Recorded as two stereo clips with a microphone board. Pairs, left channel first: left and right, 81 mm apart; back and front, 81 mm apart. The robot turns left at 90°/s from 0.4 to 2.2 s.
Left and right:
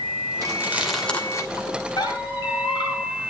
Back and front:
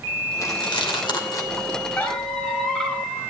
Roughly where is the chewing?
Behind right.